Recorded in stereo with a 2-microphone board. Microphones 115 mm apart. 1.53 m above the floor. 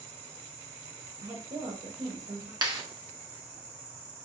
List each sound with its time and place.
0.0 s an insect: 35° right (ahead or behind), 1.5 m
1.2 s a woman speaking: 85° right, 1.4 m
2.6 s a clap: 40° right (ahead or behind), 0.7 m